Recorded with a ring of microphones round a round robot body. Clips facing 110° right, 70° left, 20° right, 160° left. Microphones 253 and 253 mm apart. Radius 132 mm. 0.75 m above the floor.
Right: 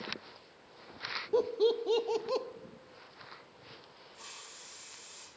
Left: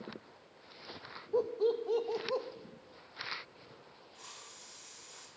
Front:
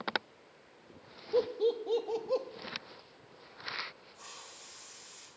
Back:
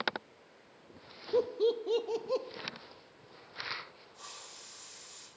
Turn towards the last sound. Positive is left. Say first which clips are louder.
# right 1 dB, even
turn(degrees=165)